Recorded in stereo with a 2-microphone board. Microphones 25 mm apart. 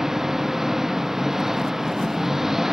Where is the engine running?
15° right (ahead or behind).